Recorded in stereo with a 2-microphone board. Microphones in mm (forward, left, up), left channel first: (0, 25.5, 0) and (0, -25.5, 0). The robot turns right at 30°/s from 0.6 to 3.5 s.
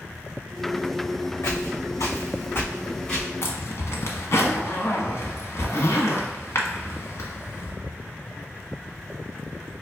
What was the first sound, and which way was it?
Footsteps, 55° left (ahead or behind).